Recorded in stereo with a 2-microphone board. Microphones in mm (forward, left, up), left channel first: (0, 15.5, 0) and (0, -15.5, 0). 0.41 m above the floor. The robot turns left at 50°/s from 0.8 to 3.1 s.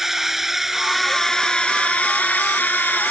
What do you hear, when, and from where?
0.0 s a drone: 175° right; by 3.1 s 70° left